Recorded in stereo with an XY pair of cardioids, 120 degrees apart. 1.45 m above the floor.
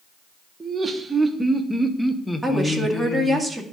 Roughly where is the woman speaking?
Ahead.